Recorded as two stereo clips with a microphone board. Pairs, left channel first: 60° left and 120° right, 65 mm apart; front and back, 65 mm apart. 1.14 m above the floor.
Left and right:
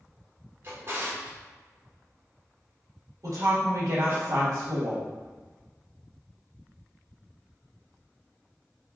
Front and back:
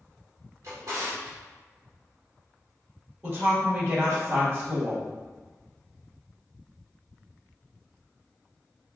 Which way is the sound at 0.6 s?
165° right.